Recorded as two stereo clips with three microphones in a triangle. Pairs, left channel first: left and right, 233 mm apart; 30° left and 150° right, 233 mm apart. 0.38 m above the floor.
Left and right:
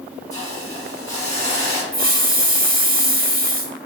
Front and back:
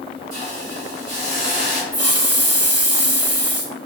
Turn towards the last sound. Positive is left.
turn(degrees=-145)